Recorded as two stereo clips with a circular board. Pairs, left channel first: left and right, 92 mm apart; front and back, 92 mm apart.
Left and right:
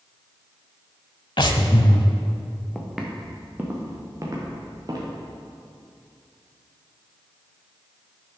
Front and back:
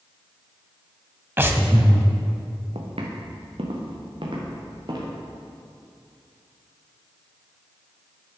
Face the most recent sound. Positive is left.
turn(degrees=-135)